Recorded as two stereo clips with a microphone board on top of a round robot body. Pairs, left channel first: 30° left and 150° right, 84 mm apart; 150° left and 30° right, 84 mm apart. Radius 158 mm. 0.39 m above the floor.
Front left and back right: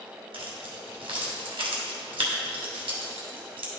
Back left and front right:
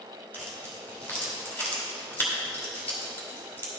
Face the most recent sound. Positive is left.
turn(degrees=-145)